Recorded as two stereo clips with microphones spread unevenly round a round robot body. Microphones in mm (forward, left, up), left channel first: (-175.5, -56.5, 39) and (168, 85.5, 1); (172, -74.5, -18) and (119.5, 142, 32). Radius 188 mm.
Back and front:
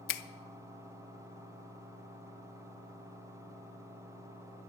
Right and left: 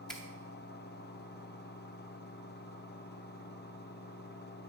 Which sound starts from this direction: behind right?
A finger snap, at 0.1 s.